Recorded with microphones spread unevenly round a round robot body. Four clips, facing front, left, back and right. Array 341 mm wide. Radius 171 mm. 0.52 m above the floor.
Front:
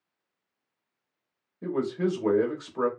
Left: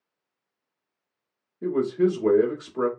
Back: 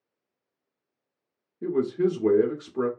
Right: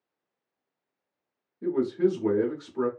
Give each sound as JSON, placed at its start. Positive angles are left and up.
{"t": 1.6, "sound": "a man speaking", "azimuth_deg": 170, "distance_m": 1.1}